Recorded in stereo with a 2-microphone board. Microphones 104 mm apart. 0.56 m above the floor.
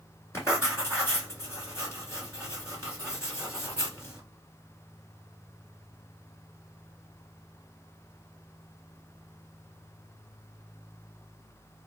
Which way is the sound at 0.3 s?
25° left (ahead or behind).